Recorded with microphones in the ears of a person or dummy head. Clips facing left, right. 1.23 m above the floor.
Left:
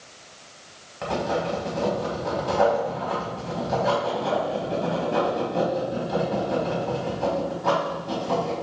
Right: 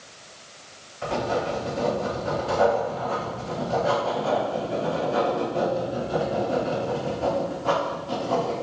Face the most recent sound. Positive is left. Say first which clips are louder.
# even
turn(degrees=65)  # may be behind; listen again after turning